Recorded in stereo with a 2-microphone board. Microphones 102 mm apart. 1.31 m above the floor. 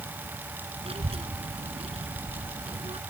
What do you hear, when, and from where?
0.8 s a child speaking: 70° right (ahead or behind)